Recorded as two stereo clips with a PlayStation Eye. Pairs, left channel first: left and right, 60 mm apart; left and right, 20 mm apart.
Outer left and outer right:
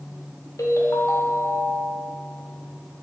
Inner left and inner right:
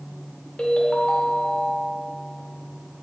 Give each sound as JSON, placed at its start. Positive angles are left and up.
{"t": 0.6, "sound": "a ringtone", "side_deg": 75, "distance_m": 1.8}